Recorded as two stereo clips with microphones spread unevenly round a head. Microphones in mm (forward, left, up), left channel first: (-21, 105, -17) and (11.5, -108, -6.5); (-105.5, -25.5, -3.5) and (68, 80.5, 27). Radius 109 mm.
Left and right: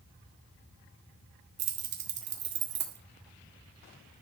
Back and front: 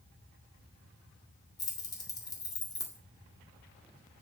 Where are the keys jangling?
75° right, 2.5 m.